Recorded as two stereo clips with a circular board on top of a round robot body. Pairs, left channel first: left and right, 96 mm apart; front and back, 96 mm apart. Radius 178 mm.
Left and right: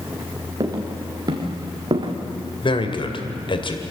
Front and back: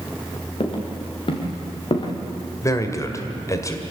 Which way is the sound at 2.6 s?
60° left.